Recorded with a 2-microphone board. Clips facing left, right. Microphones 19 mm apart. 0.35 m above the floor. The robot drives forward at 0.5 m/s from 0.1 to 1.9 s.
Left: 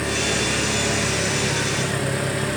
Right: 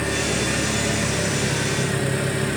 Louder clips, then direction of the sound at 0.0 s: Left 1 dB; centre (ahead or behind).